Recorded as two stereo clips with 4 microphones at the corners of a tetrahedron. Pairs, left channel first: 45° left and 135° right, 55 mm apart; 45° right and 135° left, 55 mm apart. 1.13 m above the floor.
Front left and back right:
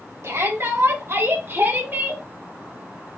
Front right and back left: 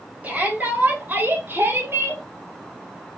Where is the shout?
160° right, 4.5 m; by 2.2 s 170° left, 2 m.